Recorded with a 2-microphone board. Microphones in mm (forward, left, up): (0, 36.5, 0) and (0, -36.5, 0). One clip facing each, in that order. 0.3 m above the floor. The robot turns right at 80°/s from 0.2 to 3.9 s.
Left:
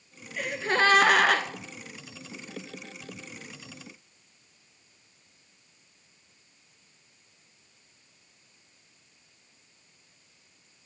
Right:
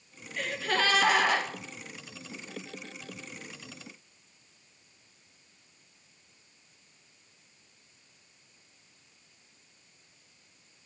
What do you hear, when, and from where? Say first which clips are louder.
0.4 s a gasp: left 4 dB; 5° left, 0.6 m; by 1.4 s 90° left, 0.6 m